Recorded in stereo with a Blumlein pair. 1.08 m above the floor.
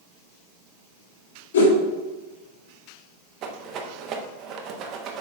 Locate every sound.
1.5 s a whoosh: 65° left, 3 m
3.4 s a rattle: 35° right, 1.0 m